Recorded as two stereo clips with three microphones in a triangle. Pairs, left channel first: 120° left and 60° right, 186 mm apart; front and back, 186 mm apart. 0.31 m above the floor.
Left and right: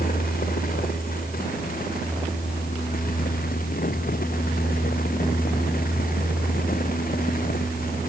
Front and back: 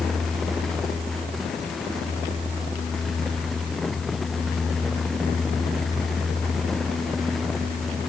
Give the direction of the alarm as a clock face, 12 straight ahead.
No alarm in this recording.